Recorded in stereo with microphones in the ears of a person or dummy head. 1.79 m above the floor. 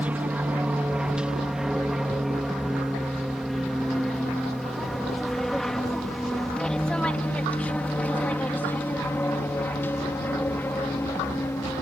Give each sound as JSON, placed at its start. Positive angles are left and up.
{"t": 0.0, "sound": "an aircraft", "side_deg": -10}